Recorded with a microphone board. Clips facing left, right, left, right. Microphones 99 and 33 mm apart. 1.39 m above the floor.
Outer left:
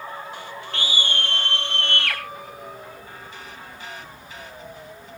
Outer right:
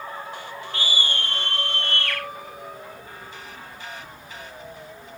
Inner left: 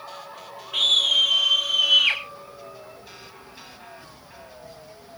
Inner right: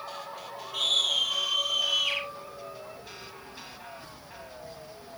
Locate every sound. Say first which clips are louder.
0.7 s a scream: outer left 1 dB, inner left 7 dB; 65° left (ahead or behind), 1.9 m; by 2.2 s 75° left (ahead or behind), 1.6 m